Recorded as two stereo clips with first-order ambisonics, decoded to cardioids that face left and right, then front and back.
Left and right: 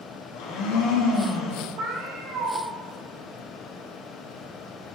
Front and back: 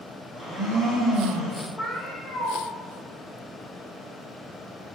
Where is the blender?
105° left, 1.4 m.